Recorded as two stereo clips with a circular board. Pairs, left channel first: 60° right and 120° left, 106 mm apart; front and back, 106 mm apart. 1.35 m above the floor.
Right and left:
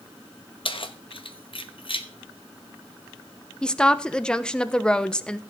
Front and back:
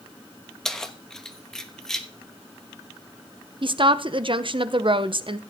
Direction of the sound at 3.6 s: 140° right.